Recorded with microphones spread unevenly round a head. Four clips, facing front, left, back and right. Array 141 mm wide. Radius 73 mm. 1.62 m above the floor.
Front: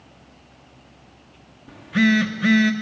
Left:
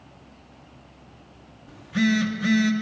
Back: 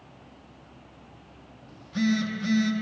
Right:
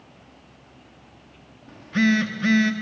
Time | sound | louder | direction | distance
1.7 | a phone buzzing | right 2 dB, front 7 dB | 30° right | 1.4 m